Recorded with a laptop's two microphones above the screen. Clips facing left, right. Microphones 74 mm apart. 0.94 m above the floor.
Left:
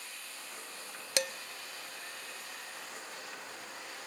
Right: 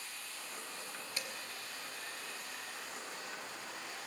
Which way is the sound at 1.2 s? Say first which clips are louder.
Left 13 dB; 90° left.